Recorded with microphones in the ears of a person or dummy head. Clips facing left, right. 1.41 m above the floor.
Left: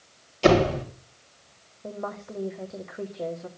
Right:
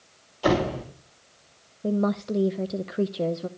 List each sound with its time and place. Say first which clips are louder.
0.4 s a door slam: left 4 dB; 35° left (ahead or behind), 4.5 m
1.8 s a woman speaking: right 11 dB; 45° right (ahead or behind), 0.7 m